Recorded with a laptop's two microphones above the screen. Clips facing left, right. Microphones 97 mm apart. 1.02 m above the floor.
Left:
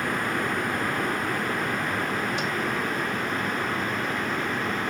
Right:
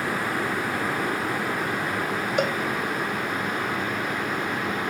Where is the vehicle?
5° right (ahead or behind).